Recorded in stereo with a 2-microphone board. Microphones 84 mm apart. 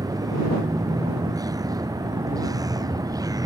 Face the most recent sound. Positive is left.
turn(degrees=-45)  # may be behind; listen again after turning